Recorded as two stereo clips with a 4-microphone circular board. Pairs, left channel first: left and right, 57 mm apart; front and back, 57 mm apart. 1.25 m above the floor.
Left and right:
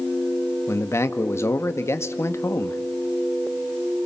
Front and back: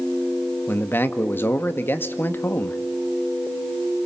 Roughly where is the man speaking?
Ahead left.